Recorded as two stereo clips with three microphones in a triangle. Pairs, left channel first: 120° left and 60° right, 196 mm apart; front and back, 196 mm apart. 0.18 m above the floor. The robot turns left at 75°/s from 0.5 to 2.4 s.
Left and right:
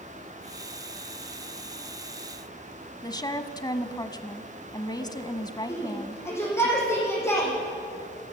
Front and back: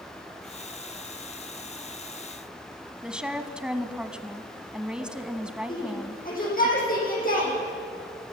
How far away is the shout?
About 8 m.